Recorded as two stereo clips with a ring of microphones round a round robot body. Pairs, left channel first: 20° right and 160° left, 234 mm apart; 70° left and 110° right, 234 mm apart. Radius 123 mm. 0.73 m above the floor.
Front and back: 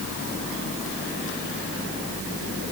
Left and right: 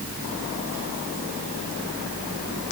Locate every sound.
Only background noise.